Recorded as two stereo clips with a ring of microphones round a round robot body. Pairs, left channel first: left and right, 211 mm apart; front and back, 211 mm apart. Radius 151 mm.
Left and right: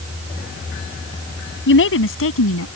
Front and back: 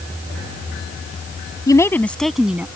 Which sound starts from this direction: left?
A woman speaking, at 1.7 s.